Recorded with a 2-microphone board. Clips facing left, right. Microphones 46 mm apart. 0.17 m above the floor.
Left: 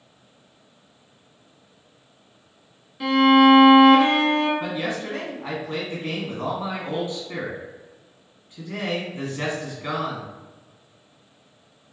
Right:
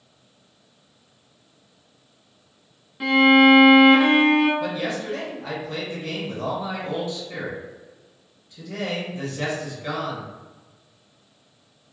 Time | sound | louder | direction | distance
3.0 | a violin | even | 15° right (ahead or behind) | 0.9 m
4.6 | a man speaking | right 1 dB | 30° left (ahead or behind) | 1.6 m